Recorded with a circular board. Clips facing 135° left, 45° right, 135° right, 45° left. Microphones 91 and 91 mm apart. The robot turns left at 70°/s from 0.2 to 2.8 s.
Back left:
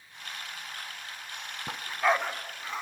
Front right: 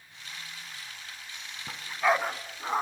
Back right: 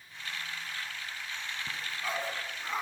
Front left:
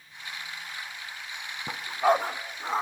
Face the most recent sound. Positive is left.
turn(degrees=-5)